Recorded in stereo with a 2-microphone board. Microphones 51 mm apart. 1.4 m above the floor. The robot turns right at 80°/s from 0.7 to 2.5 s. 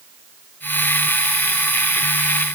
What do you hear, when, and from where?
Only background noise.